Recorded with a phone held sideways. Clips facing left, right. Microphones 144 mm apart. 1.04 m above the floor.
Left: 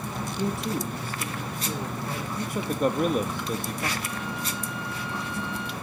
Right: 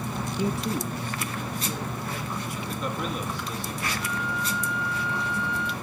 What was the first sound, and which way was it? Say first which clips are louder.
A man speaking: even; 10° right (ahead or behind).